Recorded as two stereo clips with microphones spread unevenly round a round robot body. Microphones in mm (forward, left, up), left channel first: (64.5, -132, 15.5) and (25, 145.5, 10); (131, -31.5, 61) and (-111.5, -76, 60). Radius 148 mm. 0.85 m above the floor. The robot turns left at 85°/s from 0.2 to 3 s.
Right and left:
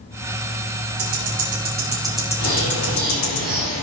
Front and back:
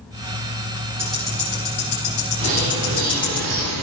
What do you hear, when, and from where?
1.0 s ticking: 110° left, 7 m; by 3.4 s 60° right, 7 m
2.4 s a bird: 135° right, 9 m; by 3.8 s 175° left, 9 m